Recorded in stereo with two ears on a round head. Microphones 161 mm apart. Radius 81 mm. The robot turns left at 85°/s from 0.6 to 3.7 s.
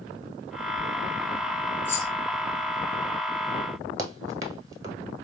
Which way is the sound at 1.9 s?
10° left (ahead or behind).